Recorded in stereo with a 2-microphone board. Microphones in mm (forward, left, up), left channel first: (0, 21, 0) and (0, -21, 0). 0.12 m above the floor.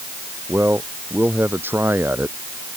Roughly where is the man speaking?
Right.